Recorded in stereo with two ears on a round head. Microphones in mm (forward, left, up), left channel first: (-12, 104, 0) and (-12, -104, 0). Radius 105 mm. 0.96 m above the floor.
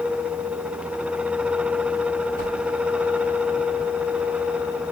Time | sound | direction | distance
2.4 | a whoosh | 40° right (ahead or behind) | 3.5 m